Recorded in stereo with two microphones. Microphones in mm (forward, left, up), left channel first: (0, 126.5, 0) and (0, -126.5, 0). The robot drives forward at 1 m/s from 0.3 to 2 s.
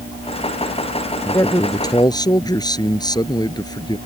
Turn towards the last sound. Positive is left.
turn(degrees=15)  # may be behind; listen again after turning